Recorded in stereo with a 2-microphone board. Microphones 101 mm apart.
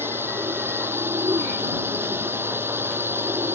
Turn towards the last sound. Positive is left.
turn(degrees=-20)  # may be behind; listen again after turning